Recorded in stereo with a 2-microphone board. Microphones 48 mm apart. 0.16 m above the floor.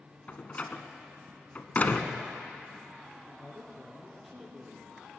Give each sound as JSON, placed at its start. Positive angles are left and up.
{"t": 0.3, "sound": "a door slam", "side_deg": 35, "distance_m": 1.3}
{"t": 3.3, "sound": "a woman speaking", "side_deg": -5, "distance_m": 4.0}